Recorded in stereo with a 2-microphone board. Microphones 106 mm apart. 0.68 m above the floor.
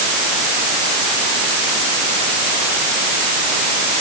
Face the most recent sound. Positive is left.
No sound to turn to.